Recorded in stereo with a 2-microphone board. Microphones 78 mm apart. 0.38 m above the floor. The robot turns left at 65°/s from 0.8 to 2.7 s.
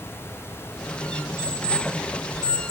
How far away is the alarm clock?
About 2.5 m.